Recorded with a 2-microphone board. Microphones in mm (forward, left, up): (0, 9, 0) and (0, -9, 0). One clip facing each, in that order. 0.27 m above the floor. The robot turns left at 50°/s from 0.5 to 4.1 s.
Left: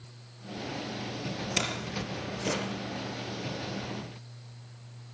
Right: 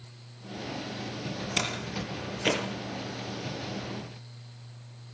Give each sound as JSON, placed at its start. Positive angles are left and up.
{"t": 1.6, "sound": "a door slam", "side_deg": -5, "distance_m": 5.0}